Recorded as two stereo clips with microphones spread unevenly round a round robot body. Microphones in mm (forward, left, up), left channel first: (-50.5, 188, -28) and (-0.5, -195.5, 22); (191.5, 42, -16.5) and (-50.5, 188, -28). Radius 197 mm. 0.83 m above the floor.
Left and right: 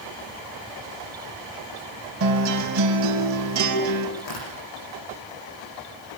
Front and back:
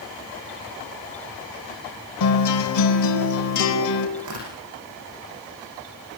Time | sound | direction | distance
2.2 | a guitar | 25° right | 4.5 m
4.2 | tearing paper | 140° left | 9.5 m